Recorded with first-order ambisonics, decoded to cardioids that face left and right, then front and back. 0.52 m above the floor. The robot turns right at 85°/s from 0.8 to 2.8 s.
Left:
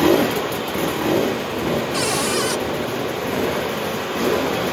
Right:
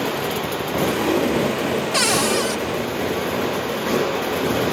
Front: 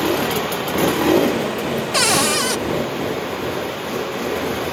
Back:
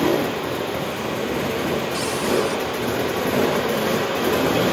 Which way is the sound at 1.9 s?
35° right.